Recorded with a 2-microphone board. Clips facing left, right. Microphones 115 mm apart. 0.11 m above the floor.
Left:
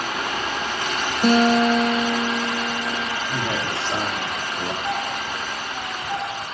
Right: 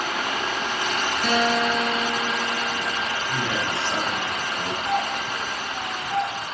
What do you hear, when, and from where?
1.2 s a guitar: 45° left (ahead or behind), 0.6 m
3.3 s a man speaking: 15° left (ahead or behind), 3 m
4.8 s a doorbell: centre (ahead or behind), 2 m